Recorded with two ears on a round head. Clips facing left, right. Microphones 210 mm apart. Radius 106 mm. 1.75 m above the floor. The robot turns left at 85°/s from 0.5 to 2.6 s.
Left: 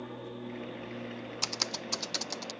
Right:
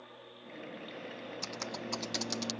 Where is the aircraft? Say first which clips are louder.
Left 12 dB; 105° left; by 2.6 s 75° right.